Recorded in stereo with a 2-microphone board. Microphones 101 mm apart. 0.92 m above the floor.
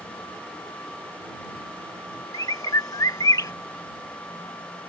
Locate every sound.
2.3 s a bird: 35° left (ahead or behind)